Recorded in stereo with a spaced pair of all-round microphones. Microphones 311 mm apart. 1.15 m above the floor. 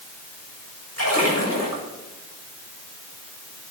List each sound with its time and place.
1.0 s a splash: 50° left (ahead or behind), 6.5 m